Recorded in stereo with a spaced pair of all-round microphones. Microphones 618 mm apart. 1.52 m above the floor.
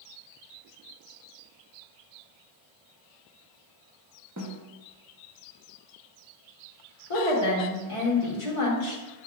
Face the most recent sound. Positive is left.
turn(degrees=55)  # may be behind; listen again after turning